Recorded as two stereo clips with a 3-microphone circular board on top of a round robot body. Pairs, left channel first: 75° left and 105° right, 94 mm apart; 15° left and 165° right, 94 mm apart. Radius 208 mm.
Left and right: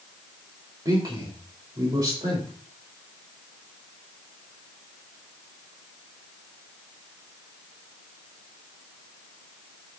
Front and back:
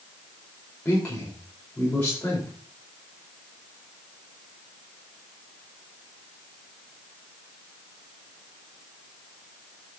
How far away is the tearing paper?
I don't hear tearing paper.